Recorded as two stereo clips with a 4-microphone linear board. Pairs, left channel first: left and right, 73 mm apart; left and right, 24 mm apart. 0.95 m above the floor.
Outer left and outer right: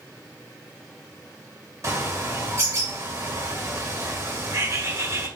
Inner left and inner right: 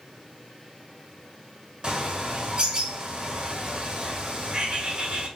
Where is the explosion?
I don't hear an explosion.